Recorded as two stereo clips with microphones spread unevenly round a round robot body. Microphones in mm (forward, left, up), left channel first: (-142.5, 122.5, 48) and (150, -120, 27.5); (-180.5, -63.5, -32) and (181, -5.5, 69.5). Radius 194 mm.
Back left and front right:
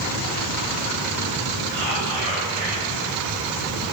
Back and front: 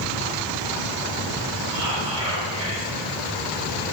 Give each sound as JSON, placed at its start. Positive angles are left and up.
{"t": 1.7, "sound": "whispering", "azimuth_deg": -5, "distance_m": 4.0}